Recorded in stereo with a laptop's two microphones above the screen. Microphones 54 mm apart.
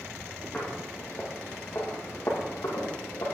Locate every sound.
0.5 s footsteps: 20° left (ahead or behind), 2.5 m; by 3.3 s 65° left (ahead or behind), 2.5 m